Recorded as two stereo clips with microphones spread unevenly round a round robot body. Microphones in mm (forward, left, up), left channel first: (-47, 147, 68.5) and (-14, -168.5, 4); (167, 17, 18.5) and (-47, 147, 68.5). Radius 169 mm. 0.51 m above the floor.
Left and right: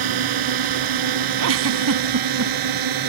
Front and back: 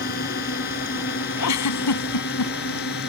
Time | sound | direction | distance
0.0 | a drone | 90° right | ?
1.4 | a giggle | 35° right | ?